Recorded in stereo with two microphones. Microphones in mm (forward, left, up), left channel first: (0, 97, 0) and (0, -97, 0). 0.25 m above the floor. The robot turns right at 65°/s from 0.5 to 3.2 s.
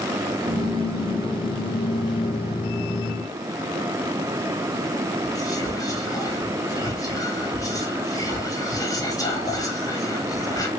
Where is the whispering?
20° left (ahead or behind), 1.0 m.